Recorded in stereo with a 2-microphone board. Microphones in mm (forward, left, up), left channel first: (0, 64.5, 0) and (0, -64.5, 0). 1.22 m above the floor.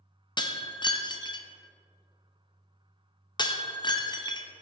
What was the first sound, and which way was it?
Breaking glass, 35° left (ahead or behind).